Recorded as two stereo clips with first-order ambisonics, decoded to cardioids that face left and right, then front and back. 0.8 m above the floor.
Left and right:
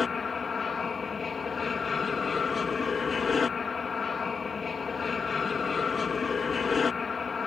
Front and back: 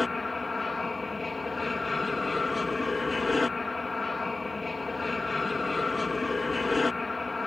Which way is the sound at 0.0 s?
55° left.